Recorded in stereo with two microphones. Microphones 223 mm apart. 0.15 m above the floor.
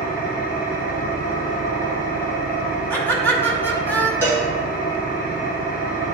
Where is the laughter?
10° left (ahead or behind), 1.5 m.